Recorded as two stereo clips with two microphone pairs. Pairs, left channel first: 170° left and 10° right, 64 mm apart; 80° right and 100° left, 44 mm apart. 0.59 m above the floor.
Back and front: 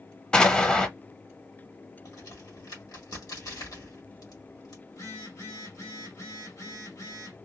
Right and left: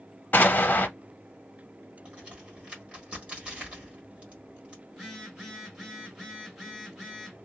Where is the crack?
160° left, 1.4 m.